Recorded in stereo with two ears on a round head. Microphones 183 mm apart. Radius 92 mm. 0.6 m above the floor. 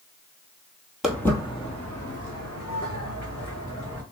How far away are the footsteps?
About 0.9 m.